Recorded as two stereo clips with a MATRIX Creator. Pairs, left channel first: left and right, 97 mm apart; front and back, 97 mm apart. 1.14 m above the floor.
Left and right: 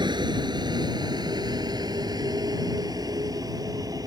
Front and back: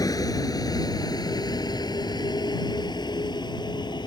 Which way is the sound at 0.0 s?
50° right.